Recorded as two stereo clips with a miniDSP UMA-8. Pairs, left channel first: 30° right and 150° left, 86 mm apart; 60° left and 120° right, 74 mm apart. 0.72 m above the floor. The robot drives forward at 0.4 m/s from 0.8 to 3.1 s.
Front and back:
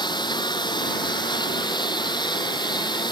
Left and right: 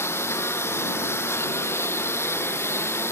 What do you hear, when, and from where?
0.0 s a lawn mower: straight ahead